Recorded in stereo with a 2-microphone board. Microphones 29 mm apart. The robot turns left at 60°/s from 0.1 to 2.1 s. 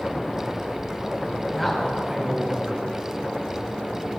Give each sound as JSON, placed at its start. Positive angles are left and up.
{"t": 1.5, "sound": "a man speaking", "azimuth_deg": 10, "distance_m": 4.5}